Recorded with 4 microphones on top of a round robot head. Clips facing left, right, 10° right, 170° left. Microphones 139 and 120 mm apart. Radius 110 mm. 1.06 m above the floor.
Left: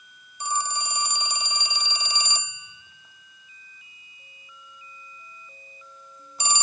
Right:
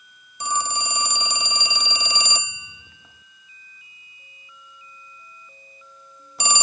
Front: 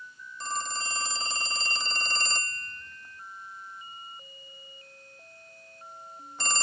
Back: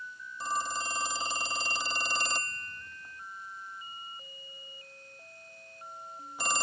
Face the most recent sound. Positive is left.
turn(degrees=-110)